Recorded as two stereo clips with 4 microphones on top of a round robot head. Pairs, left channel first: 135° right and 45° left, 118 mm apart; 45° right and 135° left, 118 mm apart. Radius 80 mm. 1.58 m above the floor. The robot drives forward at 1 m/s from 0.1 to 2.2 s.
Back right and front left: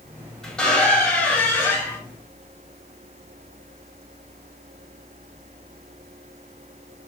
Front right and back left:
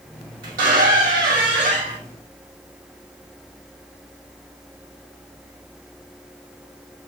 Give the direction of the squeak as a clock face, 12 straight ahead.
7 o'clock.